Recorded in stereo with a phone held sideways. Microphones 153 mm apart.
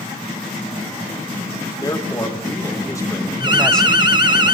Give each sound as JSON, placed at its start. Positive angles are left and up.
{"t": 1.8, "sound": "a man speaking", "side_deg": 30, "distance_m": 3.5}
{"t": 3.4, "sound": "an alarm", "side_deg": -30, "distance_m": 1.1}